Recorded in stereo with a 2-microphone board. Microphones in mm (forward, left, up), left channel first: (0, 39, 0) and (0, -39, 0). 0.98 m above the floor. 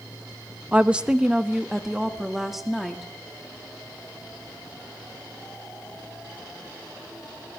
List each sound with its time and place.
0.7 s a woman speaking: 15° right (ahead or behind), 0.7 m; by 3.1 s centre (ahead or behind), 1.9 m